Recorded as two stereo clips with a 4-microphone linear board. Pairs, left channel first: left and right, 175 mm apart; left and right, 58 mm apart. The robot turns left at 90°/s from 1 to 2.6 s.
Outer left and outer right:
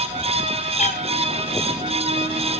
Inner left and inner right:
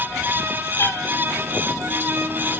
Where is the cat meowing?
40° left (ahead or behind), 1.6 m.